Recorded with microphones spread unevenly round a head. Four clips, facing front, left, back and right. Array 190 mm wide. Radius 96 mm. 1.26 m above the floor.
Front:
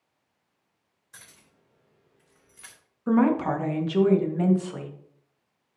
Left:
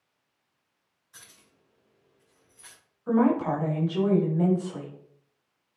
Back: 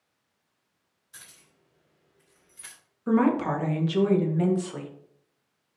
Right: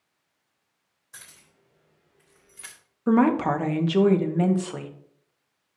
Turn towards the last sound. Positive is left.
turn(degrees=-90)